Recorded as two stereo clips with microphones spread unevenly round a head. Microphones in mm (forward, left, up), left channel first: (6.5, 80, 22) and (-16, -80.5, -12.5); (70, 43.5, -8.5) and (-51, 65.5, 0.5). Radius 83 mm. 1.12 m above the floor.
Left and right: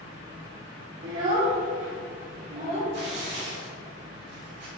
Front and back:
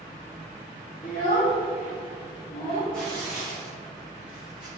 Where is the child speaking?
65° right, 0.7 m; by 2.8 s 80° right, 2.5 m.